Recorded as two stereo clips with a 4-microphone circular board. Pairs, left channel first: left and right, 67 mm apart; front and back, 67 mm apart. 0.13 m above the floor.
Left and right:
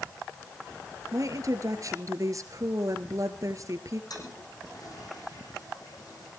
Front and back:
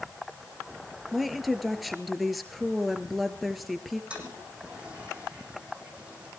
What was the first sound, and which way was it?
A woman speaking, 90° right.